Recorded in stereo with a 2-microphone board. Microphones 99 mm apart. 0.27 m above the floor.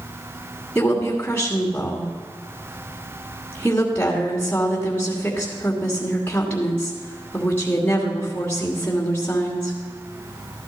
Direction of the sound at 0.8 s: 20° left (ahead or behind).